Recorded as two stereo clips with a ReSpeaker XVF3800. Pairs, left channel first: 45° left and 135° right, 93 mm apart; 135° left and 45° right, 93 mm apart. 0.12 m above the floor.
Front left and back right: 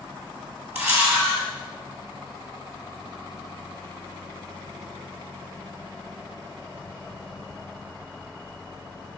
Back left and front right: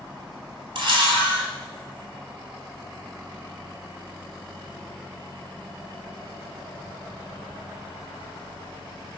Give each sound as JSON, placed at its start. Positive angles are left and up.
{"t": 0.8, "sound": "a camera shutter", "azimuth_deg": -70, "distance_m": 1.5}